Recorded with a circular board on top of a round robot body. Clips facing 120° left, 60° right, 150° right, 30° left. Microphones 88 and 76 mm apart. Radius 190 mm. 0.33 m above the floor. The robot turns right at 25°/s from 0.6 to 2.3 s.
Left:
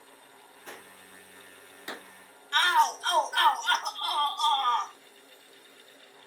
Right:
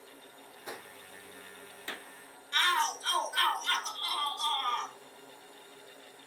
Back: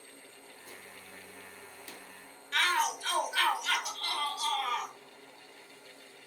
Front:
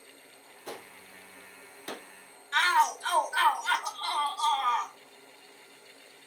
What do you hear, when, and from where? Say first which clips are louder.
0.7 s a gunshot: right 2 dB, front 9 dB; 20° left, 0.5 m; by 2.1 s 55° left, 0.5 m
2.5 s a shout: left 6 dB, front 5 dB; 90° left, 3.5 m